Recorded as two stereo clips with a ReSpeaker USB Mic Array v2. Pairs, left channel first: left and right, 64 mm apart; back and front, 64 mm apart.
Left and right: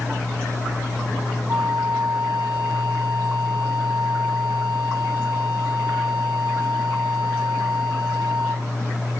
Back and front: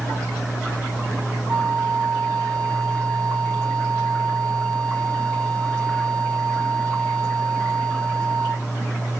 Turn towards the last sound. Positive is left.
turn(degrees=-25)